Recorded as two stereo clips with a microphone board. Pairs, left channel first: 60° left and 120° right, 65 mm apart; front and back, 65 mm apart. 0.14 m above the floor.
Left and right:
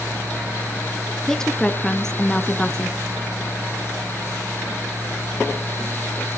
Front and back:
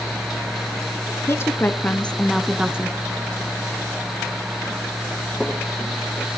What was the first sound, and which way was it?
A woman speaking, 20° right.